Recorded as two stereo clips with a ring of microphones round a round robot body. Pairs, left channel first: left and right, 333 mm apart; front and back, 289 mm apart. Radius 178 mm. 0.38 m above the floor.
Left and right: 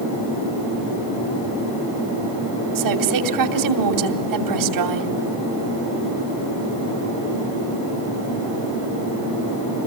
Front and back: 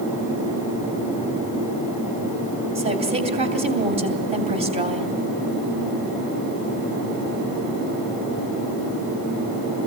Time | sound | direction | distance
2.8 | a woman speaking | 110° right | 2.5 m